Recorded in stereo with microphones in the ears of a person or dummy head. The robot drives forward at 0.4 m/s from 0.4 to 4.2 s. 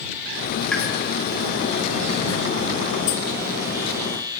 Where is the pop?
10° left (ahead or behind), 1.0 m.